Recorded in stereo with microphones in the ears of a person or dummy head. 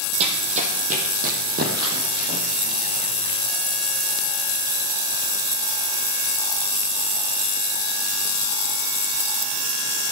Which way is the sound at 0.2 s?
35° right (ahead or behind).